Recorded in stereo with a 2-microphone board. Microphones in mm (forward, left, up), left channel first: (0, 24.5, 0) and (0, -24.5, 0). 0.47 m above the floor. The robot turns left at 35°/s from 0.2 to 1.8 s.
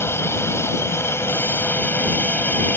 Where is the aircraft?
110° left; by 2.8 s 55° left.